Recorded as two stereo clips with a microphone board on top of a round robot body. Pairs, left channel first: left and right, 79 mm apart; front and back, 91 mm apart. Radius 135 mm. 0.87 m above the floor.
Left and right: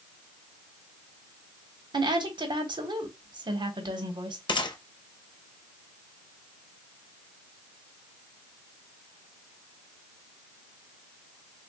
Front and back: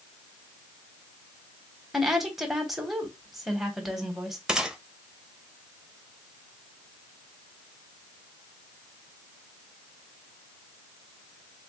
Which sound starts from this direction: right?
A woman speaking, at 1.9 s.